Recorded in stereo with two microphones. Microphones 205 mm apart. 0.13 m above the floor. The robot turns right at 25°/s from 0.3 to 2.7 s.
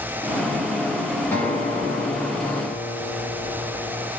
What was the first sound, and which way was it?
A guitar, 10° left.